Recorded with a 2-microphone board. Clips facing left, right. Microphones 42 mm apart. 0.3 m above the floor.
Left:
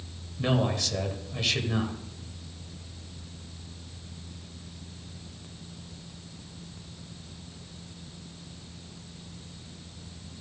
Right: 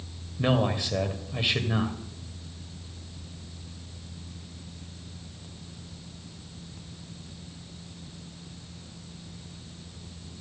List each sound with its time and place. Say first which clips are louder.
0.4 s a man speaking: right 2 dB; 20° right (ahead or behind), 1.2 m